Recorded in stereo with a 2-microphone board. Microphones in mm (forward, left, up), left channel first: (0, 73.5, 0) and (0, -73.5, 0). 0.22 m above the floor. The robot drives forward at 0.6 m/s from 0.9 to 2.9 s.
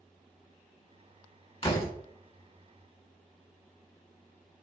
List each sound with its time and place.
1.6 s a door slam: 40° left (ahead or behind), 1.8 m; by 1.9 s 45° left (ahead or behind), 1.7 m